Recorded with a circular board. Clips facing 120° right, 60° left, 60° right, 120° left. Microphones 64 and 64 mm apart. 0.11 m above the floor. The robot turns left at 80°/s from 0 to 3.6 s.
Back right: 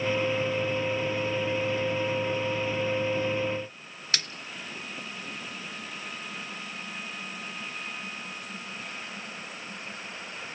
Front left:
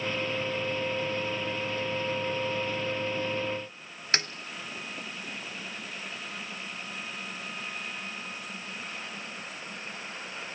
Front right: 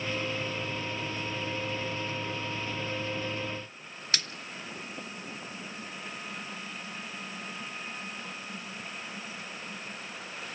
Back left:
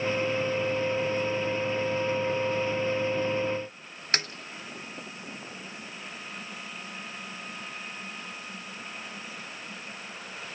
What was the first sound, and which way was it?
A snare drum, 100° left.